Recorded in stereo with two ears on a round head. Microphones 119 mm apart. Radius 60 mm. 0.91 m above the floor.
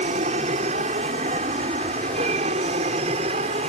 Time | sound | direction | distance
0.0 | an aircraft | 55° right (ahead or behind) | ?